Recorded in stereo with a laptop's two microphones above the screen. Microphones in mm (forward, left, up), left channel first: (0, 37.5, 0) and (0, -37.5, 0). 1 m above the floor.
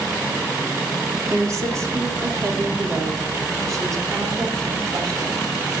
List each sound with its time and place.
1.3 s a woman speaking: 45° right (ahead or behind), 3 m